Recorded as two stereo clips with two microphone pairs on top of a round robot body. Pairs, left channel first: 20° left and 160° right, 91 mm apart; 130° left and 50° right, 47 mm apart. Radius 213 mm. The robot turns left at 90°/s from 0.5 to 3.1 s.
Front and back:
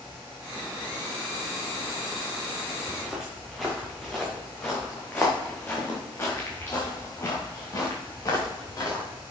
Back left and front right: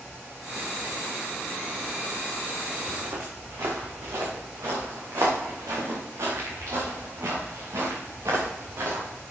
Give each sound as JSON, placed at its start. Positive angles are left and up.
{"t": 2.9, "sound": "footsteps", "azimuth_deg": -55, "distance_m": 3.0}